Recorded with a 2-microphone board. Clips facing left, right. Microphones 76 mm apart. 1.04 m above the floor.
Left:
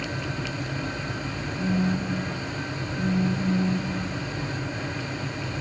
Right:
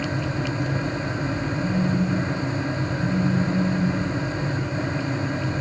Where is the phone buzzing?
35° left (ahead or behind), 1.2 m.